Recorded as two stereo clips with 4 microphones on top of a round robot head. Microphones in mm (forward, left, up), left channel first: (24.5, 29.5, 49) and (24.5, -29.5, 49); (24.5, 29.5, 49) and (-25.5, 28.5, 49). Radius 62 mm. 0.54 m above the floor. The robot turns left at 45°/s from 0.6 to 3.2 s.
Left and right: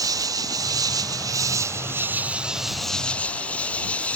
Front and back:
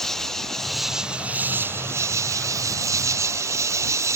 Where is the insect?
85° right; by 4.2 s 160° left.